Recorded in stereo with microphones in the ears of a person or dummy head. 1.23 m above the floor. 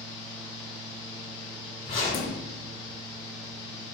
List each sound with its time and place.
0.0 s a fan: 20° left (ahead or behind), 0.8 m
1.9 s a zipper: 50° left (ahead or behind), 1.2 m